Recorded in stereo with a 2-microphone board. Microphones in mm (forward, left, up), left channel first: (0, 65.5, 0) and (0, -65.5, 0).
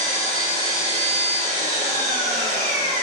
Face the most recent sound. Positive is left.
turn(degrees=50)  # may be behind; listen again after turning